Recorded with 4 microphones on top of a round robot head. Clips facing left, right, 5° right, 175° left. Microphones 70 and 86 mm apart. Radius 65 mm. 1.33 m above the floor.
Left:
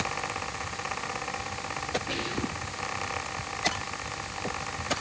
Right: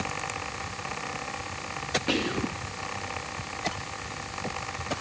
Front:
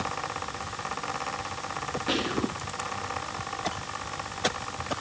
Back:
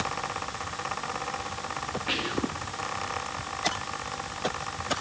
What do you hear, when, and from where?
2.1 s whispering: 75° right, 2.5 m